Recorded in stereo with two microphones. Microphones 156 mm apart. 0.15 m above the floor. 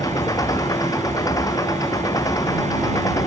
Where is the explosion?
No explosion in this recording.